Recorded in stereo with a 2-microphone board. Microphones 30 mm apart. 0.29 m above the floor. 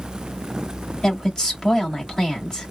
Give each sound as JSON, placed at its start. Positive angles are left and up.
{"t": 1.0, "sound": "a woman speaking", "side_deg": 20, "distance_m": 1.6}